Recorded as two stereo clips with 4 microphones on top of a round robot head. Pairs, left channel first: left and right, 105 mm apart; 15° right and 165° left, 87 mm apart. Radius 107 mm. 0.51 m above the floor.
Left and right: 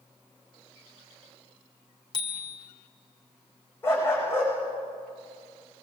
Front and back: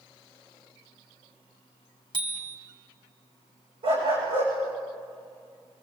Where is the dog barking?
160° left, 9 m.